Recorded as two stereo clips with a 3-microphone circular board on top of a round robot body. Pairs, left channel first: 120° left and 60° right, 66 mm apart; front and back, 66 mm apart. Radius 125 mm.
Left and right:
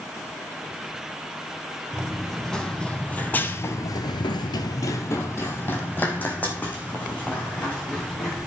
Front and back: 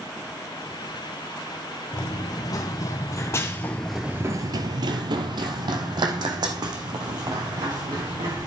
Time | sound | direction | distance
1.9 | running footsteps | 35° left | 1.9 m